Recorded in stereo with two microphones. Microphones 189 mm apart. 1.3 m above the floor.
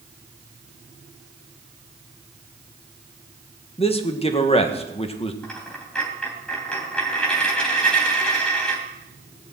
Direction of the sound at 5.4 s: 5° left (ahead or behind).